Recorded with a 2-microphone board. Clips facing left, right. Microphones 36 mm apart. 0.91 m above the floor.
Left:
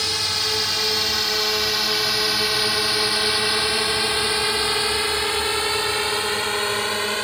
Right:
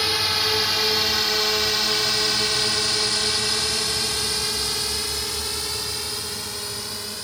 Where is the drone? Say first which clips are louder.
Right 1 dB; 15° right (ahead or behind); by 7.2 s 55° left (ahead or behind).